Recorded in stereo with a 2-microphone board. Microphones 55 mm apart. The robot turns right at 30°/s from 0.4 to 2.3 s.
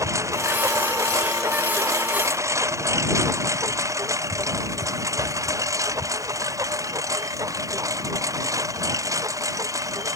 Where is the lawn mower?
70° right (ahead or behind); by 10.2 s 90° right.